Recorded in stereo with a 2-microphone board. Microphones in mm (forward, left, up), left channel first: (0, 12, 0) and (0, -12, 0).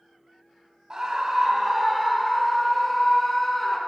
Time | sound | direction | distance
0.9 | a scream | 30° right (ahead or behind) | 1.2 m